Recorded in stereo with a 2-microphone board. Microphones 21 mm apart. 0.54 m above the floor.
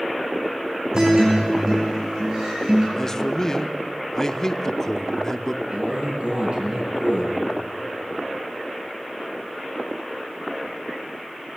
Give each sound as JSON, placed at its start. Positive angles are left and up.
{"t": 0.9, "sound": "a guitar", "side_deg": -30, "distance_m": 7.0}
{"t": 3.0, "sound": "a man speaking", "side_deg": 25, "distance_m": 0.9}
{"t": 5.7, "sound": "a man speaking", "side_deg": -65, "distance_m": 8.5}